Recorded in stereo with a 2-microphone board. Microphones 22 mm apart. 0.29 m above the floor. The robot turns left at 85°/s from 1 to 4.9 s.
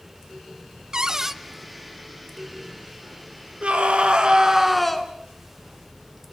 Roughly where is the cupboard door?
Behind right.